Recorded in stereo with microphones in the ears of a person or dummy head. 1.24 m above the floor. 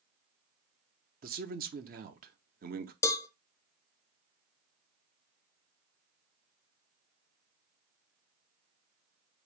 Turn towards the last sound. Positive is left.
turn(degrees=15)  # may be behind; listen again after turning